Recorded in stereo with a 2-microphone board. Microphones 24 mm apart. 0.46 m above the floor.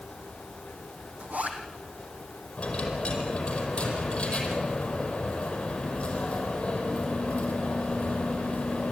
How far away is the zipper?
About 3 m.